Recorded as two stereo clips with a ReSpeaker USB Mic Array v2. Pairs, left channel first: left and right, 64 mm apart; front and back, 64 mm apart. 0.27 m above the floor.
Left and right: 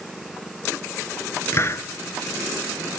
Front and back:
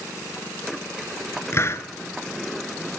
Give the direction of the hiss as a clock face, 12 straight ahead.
10 o'clock.